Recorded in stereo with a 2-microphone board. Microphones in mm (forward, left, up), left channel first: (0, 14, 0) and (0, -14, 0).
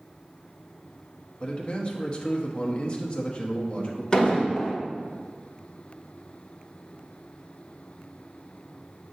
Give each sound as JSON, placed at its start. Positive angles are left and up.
{"t": 1.4, "sound": "a man speaking", "side_deg": 35, "distance_m": 1.0}
{"t": 4.1, "sound": "an explosion", "side_deg": 25, "distance_m": 1.4}